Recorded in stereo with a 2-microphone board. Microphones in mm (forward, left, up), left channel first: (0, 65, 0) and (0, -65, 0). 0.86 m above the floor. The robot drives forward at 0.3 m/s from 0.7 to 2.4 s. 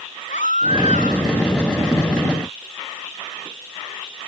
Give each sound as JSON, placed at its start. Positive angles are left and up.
{"t": 0.3, "sound": "a baby crying", "side_deg": 70}